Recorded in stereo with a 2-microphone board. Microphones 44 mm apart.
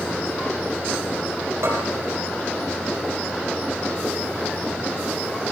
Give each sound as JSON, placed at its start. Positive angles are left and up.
{"t": 1.6, "sound": "a bell", "side_deg": -80, "distance_m": 7.0}